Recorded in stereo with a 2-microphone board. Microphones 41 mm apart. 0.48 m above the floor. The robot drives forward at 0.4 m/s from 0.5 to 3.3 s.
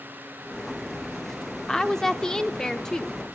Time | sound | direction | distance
1.7 | a woman speaking | 10° left (ahead or behind) | 0.9 m